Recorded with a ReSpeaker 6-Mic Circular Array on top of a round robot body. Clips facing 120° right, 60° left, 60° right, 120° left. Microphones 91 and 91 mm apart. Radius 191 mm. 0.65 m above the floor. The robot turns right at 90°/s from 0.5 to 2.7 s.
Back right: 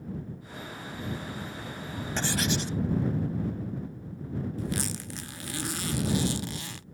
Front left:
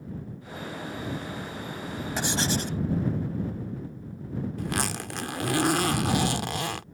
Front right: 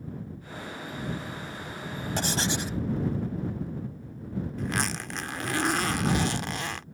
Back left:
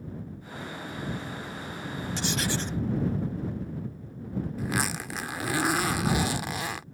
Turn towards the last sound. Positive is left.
turn(degrees=35)